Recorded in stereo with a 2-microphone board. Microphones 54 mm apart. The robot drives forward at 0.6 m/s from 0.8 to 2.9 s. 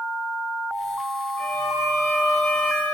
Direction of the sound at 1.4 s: 60° left (ahead or behind).